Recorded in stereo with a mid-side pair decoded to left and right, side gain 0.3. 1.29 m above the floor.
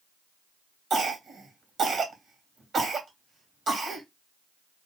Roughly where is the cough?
Right.